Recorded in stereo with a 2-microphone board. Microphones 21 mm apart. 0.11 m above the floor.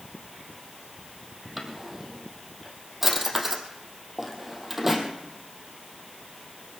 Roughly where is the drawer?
Centre.